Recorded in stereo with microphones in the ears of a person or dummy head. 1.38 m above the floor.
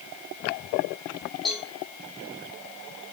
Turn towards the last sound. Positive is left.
turn(degrees=0)  # may be behind; listen again after turning